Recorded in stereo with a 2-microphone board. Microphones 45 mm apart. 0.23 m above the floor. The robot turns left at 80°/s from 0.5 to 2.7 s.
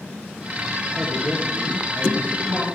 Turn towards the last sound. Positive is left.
turn(degrees=20)